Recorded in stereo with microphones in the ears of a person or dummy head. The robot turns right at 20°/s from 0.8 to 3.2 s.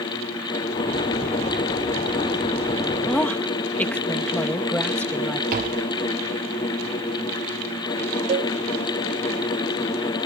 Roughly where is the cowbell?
Right.